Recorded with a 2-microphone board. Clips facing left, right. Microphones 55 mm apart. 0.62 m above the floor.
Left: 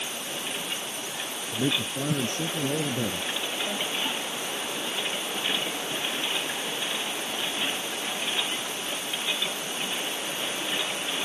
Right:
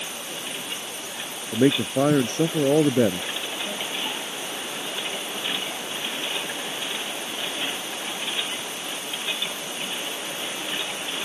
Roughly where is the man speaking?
Right.